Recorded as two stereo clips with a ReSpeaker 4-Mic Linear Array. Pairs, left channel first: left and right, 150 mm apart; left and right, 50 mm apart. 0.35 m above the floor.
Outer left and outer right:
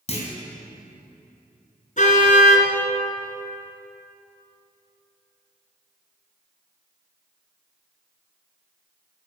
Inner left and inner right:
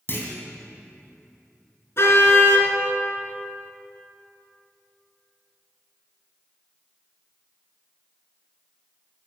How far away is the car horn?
About 2 m.